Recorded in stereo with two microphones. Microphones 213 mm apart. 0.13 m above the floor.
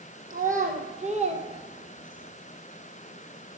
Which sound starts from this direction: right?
A child speaking, at 0.3 s.